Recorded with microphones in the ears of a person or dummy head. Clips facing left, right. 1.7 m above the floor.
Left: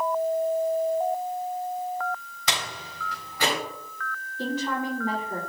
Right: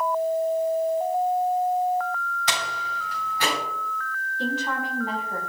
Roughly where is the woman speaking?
Left.